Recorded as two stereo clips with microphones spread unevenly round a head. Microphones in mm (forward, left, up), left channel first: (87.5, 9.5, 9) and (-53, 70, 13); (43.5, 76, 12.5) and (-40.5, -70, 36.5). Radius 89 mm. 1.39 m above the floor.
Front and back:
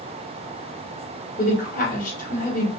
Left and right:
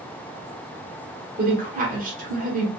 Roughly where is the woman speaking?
Right.